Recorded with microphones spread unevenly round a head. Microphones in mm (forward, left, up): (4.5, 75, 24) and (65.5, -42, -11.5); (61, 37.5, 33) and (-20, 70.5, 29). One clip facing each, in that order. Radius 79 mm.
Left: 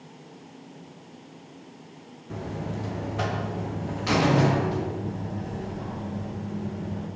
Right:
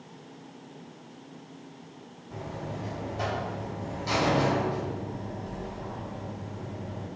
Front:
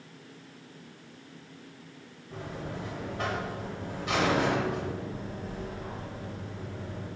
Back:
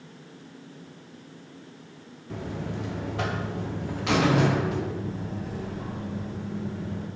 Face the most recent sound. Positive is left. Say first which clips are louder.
# left 4 dB, back 4 dB
turn(degrees=145)